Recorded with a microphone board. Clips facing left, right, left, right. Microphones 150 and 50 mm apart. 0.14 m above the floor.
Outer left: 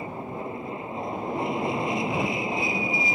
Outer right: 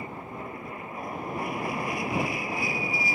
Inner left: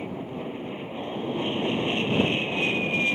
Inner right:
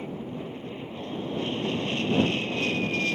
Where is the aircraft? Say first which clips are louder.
Outer left 4 dB, inner left 2 dB; 25° left (ahead or behind); by 3.1 s 20° left (ahead or behind).